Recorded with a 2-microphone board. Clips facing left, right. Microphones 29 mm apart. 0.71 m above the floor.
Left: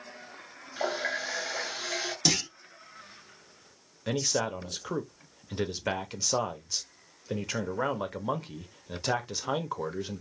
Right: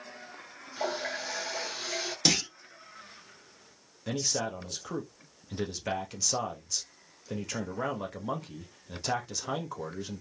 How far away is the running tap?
About 1.4 m.